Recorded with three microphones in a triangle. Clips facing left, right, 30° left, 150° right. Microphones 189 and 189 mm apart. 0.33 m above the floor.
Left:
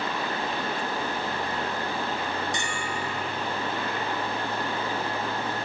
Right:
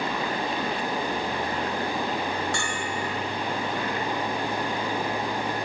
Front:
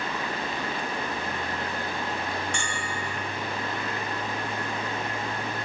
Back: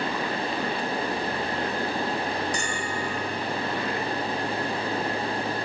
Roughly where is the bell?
Behind.